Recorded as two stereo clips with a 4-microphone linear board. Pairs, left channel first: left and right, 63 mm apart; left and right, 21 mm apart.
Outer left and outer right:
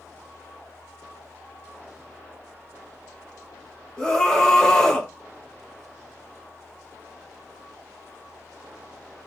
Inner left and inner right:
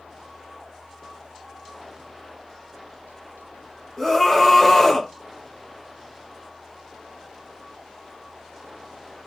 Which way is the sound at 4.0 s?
10° left (ahead or behind).